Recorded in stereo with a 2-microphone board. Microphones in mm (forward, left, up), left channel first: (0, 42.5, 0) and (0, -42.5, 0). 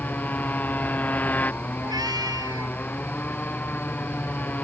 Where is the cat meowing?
55° right (ahead or behind).